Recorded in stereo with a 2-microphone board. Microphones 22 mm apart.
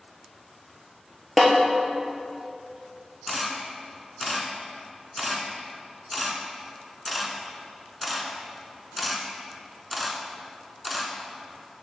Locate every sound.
1.4 s a snare drum: centre (ahead or behind), 1.1 m
3.3 s a camera shutter: centre (ahead or behind), 0.7 m